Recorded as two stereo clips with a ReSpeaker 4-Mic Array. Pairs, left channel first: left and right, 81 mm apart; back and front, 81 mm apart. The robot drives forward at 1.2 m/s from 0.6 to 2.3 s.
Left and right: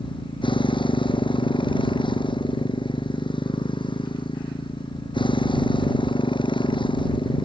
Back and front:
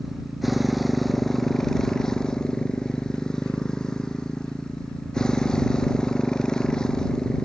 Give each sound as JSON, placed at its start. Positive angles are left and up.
{"t": 0.0, "sound": "a motorcycle", "azimuth_deg": 90}